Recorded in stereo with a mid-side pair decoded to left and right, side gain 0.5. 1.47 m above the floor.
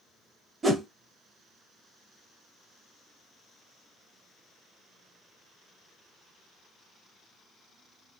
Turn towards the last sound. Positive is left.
turn(degrees=-25)